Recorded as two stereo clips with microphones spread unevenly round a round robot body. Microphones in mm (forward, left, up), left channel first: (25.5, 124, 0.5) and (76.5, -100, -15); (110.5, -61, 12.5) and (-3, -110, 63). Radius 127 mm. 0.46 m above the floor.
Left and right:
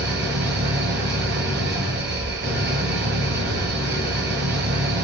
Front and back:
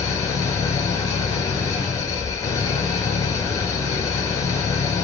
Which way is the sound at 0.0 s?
40° right.